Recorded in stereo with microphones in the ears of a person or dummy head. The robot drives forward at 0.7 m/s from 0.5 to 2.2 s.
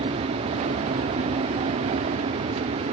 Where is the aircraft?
35° right (ahead or behind); by 2.9 s 40° right (ahead or behind).